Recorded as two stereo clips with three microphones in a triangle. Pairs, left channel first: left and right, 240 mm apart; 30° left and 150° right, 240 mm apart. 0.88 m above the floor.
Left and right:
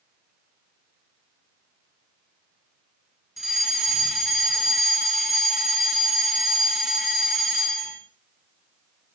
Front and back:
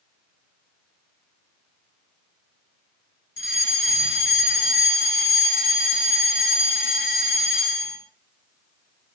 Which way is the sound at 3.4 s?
Straight ahead.